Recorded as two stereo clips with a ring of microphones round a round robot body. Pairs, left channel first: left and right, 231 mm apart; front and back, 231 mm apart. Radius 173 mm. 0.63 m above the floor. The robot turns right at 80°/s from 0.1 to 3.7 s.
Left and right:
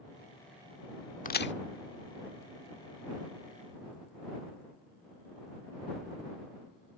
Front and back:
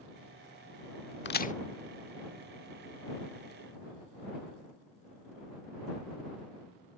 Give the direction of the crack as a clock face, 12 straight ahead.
11 o'clock.